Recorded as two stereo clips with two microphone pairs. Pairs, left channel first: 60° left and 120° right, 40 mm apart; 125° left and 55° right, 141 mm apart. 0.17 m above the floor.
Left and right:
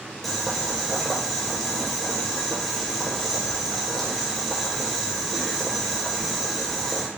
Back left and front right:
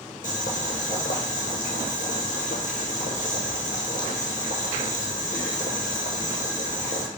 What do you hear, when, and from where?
0.2 s boiling: 145° left, 0.9 m